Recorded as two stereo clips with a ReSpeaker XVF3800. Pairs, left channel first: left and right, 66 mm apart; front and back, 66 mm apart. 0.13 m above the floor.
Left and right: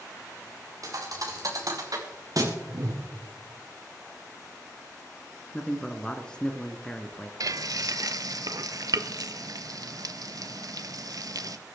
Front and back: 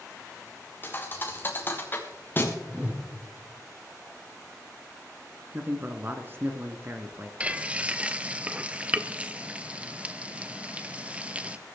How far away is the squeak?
I don't hear a squeak.